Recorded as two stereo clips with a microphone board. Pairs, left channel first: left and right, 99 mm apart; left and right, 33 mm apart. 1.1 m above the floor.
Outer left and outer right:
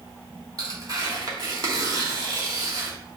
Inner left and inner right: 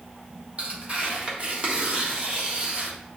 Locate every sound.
0.6 s tearing paper: 40° right (ahead or behind), 1.7 m